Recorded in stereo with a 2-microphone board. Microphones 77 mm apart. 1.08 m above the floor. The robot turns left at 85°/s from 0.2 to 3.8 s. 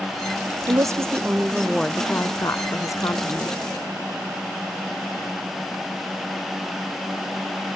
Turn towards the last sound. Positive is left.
turn(degrees=0)